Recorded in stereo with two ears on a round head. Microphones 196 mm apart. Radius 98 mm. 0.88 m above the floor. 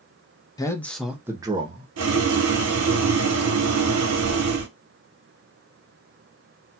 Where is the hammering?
No hammering in this recording.